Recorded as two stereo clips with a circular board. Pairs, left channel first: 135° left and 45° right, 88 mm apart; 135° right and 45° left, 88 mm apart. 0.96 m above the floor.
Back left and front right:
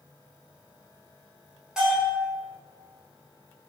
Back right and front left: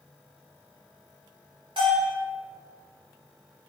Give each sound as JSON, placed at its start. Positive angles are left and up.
{"t": 1.8, "sound": "a bell", "azimuth_deg": 35, "distance_m": 1.6}